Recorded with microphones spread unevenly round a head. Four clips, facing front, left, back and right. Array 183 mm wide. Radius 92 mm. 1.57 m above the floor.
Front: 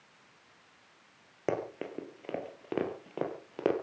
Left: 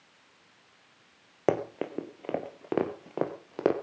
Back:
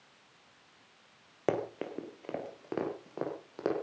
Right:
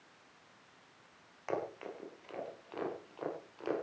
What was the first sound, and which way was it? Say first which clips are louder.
Running footsteps: left 10 dB, back 1 dB; 95° left.